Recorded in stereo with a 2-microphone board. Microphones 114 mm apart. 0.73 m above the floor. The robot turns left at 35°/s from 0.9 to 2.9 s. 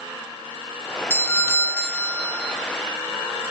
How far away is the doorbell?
About 0.9 m.